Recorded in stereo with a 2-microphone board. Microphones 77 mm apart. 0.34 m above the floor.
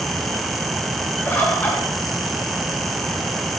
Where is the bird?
25° left (ahead or behind), 1.4 m.